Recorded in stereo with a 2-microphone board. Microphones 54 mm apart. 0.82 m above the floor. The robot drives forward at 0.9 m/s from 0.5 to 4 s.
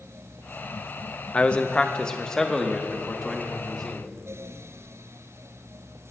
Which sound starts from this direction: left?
A man speaking, at 1.3 s.